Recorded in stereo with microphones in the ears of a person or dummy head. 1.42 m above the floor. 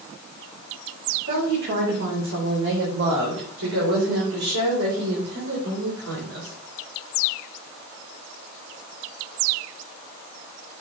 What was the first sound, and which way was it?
A woman speaking, 65° right (ahead or behind).